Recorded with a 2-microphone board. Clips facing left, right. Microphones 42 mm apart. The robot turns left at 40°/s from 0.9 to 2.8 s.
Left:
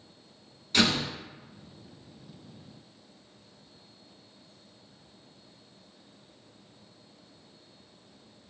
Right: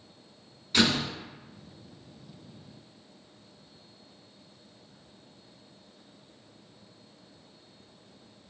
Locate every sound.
0.7 s a door slam: 5° right (ahead or behind), 0.9 m